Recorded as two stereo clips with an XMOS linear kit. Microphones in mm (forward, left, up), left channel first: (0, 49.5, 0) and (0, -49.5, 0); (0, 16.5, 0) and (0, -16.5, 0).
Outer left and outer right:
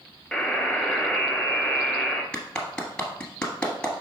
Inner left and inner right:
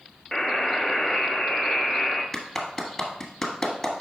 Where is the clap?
10° left (ahead or behind), 1.4 m.